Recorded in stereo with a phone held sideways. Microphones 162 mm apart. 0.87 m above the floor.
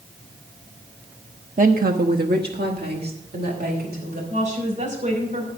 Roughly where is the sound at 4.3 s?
Right.